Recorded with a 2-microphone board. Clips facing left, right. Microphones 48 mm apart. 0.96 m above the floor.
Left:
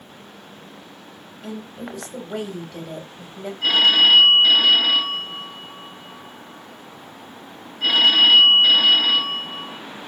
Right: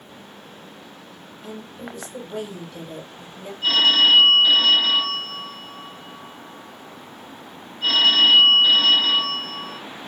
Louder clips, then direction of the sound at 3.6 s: Left 1 dB; 80° left.